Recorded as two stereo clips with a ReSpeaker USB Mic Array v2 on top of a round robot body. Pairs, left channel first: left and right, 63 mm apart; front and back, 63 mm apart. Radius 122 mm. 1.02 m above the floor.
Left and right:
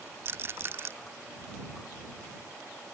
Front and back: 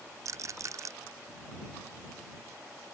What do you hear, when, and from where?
0.2 s a rattle: 140° right